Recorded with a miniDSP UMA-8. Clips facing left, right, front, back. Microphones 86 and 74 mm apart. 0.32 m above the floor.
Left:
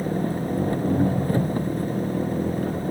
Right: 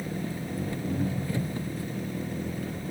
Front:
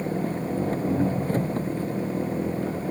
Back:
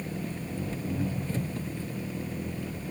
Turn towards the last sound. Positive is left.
turn(degrees=45)